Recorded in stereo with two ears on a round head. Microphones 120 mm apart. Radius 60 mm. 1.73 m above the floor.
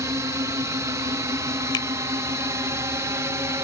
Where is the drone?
20° right (ahead or behind).